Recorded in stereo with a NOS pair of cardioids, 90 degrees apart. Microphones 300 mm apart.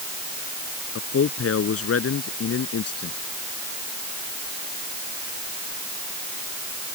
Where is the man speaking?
50° left; by 3.2 s 55° left.